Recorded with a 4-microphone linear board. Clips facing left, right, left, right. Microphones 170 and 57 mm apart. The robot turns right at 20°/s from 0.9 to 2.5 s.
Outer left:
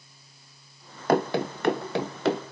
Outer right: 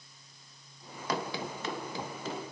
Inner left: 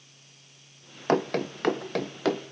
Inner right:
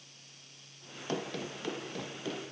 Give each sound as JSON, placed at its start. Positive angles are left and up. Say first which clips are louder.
{"t": 1.1, "sound": "running footsteps", "louder": "outer left 11 dB, inner left 12 dB", "side_deg": 55, "distance_m": 1.7}